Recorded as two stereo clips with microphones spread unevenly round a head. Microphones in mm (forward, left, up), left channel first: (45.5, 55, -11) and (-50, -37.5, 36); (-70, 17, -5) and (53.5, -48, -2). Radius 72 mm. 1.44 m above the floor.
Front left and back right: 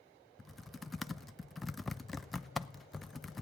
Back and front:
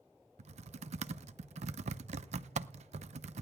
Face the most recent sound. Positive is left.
turn(degrees=-60)